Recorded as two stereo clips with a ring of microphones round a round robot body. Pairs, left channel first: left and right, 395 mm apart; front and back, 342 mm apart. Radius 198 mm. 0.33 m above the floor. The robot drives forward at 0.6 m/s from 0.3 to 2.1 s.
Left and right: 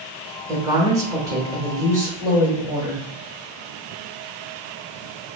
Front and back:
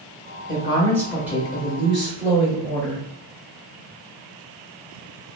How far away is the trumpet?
No trumpet in this recording.